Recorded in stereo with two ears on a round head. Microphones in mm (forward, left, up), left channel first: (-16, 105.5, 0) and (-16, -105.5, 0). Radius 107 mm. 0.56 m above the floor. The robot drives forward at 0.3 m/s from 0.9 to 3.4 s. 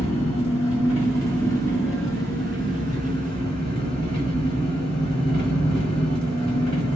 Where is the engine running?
15° left (ahead or behind), 1.8 m; by 7.0 s 20° left (ahead or behind), 1.1 m.